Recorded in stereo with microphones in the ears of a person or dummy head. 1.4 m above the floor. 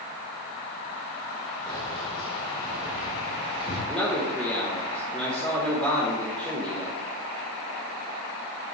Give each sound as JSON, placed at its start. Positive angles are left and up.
{"t": 1.7, "sound": "keys jangling", "side_deg": 30, "distance_m": 5.0}
{"t": 3.9, "sound": "a man speaking", "side_deg": 5, "distance_m": 4.0}